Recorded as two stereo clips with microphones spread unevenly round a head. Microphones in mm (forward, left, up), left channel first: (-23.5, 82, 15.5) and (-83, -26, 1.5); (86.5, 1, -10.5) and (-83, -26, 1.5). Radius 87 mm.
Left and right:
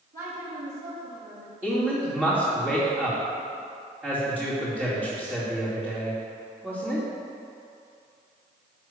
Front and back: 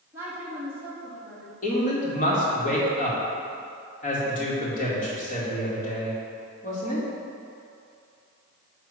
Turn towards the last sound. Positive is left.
turn(degrees=-35)